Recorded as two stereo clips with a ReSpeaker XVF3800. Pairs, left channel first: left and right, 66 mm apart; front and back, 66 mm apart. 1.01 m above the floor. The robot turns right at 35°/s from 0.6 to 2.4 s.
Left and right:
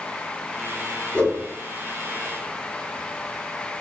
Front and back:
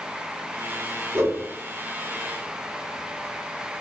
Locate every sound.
1.1 s a whoosh: 150° left, 1.0 m; by 1.5 s 160° left, 1.0 m